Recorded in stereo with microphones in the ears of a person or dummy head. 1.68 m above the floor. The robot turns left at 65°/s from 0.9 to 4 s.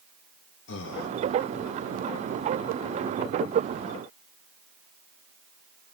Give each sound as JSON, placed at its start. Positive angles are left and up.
{"t": 0.7, "sound": "breathing", "side_deg": 60, "distance_m": 0.7}